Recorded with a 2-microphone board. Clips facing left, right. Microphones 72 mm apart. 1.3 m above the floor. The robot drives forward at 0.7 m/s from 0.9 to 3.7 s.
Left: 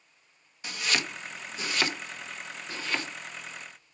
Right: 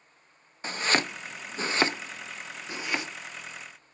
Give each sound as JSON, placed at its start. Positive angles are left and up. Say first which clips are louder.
{"t": 0.6, "sound": "chopping", "louder": "right 4 dB", "side_deg": -35, "distance_m": 0.6}